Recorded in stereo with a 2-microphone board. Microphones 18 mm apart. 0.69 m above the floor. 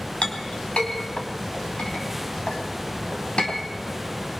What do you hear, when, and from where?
0.2 s a clink: 75° left (ahead or behind), 3.5 m